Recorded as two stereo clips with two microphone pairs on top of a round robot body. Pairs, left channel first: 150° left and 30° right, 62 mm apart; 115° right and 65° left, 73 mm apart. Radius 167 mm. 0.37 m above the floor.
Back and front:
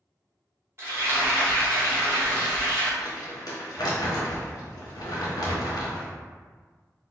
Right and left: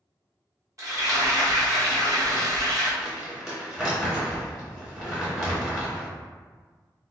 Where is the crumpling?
150° left, 0.9 m.